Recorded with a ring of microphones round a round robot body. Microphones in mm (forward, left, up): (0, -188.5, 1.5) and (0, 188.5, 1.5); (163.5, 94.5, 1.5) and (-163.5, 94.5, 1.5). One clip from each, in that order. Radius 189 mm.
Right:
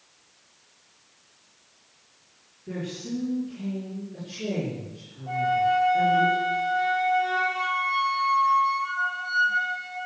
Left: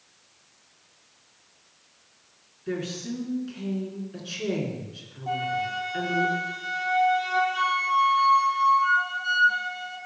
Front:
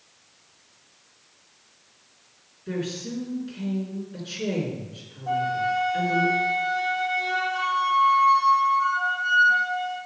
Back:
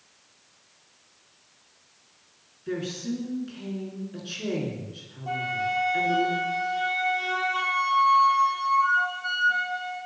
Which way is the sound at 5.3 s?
125° left.